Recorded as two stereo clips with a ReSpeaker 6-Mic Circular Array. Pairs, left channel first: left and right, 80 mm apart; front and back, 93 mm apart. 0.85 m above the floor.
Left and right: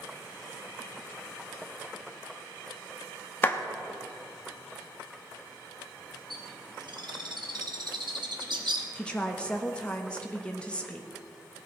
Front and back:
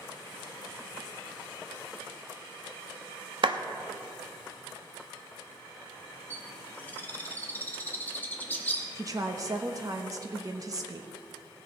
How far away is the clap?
About 0.8 m.